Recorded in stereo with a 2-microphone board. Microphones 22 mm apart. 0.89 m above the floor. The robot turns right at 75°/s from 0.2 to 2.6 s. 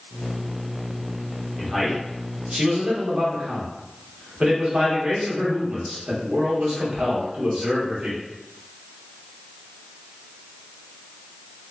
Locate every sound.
1.6 s a man speaking: 160° left, 1.1 m; by 8.2 s 120° right, 1.1 m